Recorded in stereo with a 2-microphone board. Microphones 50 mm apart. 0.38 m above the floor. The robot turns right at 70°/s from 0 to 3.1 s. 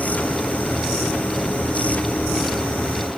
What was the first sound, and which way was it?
Only background noise.